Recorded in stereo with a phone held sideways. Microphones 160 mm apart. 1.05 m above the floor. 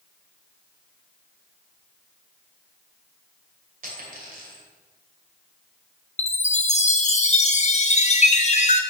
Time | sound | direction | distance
3.8 | a dropped coin | 60° right (ahead or behind) | 2.5 m
6.2 | a chime | 45° left (ahead or behind) | 0.6 m